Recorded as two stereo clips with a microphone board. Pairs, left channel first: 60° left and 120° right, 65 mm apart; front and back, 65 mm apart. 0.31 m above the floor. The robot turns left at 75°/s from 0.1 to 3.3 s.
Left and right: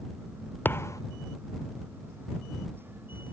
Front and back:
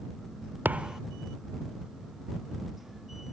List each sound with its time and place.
0.7 s a thud: 120° left; by 1.0 s 90° left